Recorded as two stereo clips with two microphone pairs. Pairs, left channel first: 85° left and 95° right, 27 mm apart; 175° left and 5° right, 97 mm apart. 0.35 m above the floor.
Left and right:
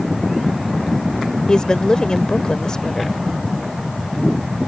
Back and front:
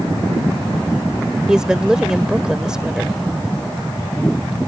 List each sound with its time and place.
1.5 s a woman speaking: 75° left